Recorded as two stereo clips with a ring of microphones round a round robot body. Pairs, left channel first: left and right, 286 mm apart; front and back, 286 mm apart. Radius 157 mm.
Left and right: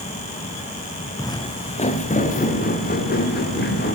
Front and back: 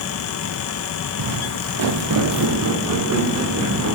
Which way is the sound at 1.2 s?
170° left.